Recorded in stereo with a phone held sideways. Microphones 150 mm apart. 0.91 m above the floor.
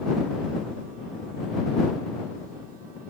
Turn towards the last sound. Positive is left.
No sound to turn to.